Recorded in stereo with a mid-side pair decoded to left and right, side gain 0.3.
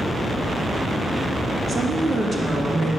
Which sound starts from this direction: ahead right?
A woman speaking, at 1.7 s.